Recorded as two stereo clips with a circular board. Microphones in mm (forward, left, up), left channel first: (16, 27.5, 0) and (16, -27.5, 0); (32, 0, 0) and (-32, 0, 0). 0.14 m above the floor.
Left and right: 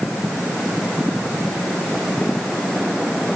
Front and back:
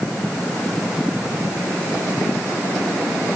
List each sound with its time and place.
Only background noise.